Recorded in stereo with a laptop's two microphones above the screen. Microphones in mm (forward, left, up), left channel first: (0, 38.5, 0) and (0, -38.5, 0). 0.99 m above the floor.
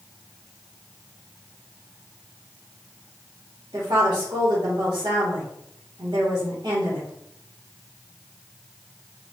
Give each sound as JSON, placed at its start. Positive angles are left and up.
{"t": 3.7, "sound": "a woman speaking", "side_deg": -55, "distance_m": 1.7}